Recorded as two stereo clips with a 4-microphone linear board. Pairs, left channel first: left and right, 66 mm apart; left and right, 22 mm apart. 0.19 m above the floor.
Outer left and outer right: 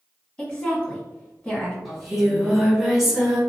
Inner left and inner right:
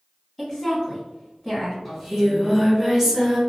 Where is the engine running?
I don't hear an engine running.